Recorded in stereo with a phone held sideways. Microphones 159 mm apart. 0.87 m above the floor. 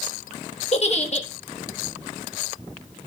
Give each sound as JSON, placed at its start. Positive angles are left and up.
{"t": 0.7, "sound": "a giggle", "side_deg": 45, "distance_m": 1.4}